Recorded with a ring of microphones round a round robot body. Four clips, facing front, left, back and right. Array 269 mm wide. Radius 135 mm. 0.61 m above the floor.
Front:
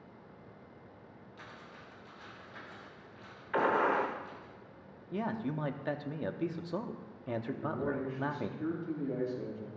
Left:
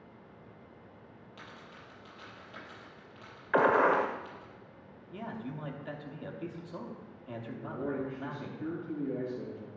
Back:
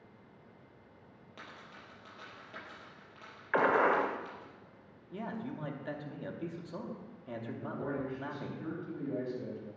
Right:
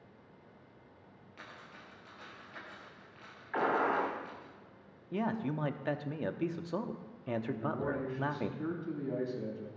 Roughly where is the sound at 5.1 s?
Ahead right.